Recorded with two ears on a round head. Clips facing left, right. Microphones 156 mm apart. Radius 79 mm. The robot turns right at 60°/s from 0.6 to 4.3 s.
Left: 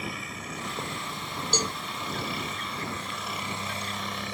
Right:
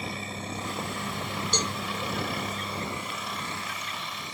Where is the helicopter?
30° right (ahead or behind); by 4.3 s 50° left (ahead or behind).